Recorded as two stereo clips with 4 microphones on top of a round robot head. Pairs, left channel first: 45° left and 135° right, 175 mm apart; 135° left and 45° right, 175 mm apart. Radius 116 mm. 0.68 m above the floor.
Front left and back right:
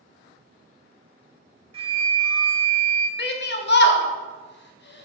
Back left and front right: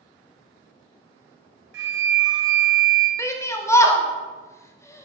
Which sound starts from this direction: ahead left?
A shout, at 3.2 s.